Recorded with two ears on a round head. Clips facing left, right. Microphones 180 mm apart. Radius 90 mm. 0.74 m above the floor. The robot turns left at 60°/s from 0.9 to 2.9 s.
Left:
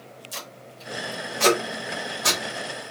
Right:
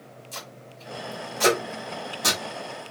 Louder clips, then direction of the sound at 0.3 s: Even; 10° left (ahead or behind).